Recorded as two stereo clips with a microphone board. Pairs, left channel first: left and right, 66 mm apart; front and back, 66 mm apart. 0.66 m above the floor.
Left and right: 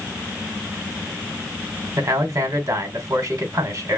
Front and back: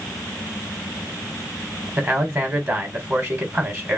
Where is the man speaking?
125° right, 3 m.